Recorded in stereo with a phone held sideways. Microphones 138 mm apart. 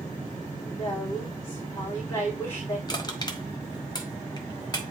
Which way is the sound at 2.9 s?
30° left (ahead or behind).